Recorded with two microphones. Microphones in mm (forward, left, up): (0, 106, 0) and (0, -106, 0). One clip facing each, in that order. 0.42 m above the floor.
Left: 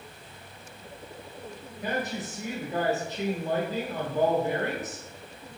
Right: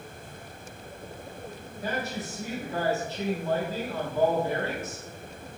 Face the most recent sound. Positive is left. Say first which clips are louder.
# left 1 dB
turn(degrees=15)  # may be behind; listen again after turning